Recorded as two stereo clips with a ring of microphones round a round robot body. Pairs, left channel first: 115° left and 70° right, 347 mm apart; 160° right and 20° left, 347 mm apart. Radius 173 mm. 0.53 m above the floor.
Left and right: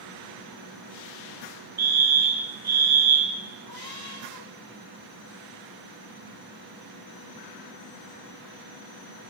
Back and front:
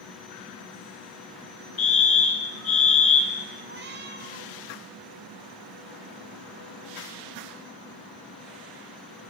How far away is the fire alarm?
About 6 m.